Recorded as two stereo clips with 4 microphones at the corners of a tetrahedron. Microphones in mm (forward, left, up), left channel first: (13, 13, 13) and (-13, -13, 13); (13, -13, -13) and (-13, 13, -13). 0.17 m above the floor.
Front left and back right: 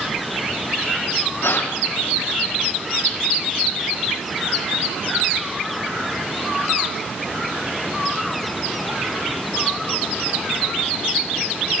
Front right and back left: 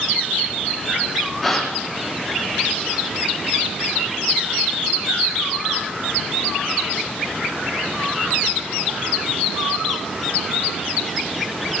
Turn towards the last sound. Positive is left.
turn(degrees=40)